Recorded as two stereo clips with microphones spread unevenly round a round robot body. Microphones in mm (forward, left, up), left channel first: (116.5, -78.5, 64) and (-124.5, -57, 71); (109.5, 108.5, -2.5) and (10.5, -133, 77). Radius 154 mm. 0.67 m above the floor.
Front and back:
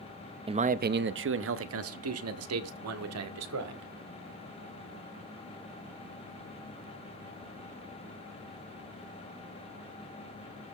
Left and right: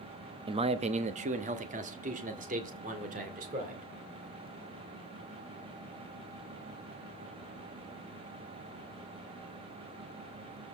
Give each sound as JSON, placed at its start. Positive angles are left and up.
{"t": 0.5, "sound": "a man speaking", "azimuth_deg": 160, "distance_m": 0.6}